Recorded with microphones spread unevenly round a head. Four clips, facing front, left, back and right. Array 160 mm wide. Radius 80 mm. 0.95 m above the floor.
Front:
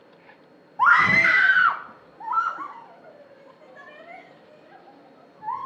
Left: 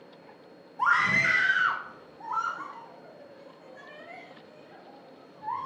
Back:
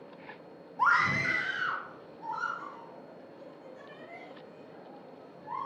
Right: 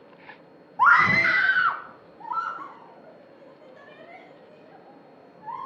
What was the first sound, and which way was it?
A scream, 40° right.